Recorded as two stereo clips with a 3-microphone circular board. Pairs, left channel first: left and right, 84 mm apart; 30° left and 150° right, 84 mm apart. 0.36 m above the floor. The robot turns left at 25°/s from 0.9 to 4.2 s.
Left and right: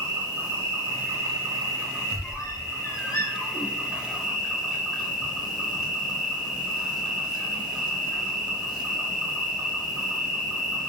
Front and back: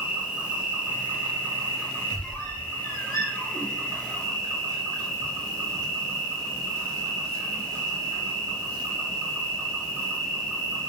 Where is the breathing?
No breathing in this recording.